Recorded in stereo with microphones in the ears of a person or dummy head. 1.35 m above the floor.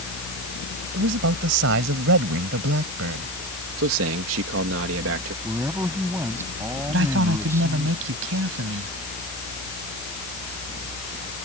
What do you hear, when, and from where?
0.9 s a man speaking: 75° right (ahead or behind)
3.8 s a man speaking: 75° right (ahead or behind)
5.4 s a man speaking: 15° right (ahead or behind)
6.9 s a man speaking: 75° right (ahead or behind)